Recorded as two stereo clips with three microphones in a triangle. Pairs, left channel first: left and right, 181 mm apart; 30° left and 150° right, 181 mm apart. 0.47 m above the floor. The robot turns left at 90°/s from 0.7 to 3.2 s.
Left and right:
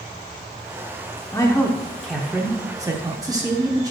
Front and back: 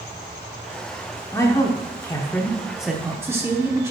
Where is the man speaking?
65° left, 0.8 m; by 3.9 s 105° right, 0.8 m.